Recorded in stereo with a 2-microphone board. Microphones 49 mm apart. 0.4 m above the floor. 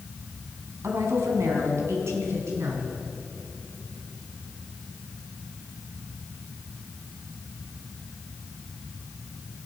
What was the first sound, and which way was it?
A woman speaking, 65° right (ahead or behind).